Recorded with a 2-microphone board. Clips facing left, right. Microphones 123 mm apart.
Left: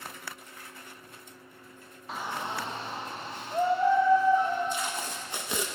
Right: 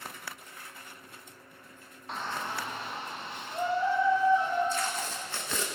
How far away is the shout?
About 1.0 m.